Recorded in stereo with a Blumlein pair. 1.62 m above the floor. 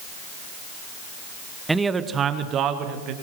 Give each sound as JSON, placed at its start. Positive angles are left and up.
{"t": 1.7, "sound": "a man speaking", "azimuth_deg": -5, "distance_m": 1.1}